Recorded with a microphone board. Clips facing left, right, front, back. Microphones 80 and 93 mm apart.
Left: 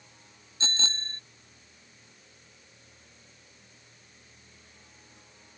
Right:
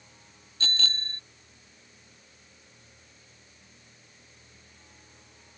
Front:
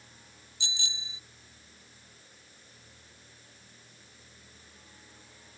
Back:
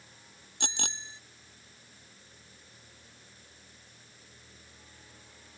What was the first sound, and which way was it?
A bicycle bell, 155° left.